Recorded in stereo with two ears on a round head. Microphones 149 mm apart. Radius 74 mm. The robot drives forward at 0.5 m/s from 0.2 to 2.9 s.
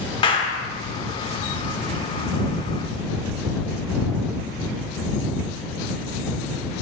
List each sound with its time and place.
0.2 s a clap: 30° left (ahead or behind), 1.0 m